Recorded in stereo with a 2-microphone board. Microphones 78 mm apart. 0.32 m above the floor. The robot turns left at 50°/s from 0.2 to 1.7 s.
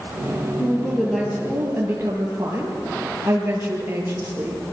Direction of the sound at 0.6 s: 25° left.